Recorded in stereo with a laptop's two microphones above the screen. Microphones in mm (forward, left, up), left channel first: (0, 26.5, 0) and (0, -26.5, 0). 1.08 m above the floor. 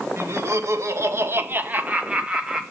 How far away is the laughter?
About 2 m.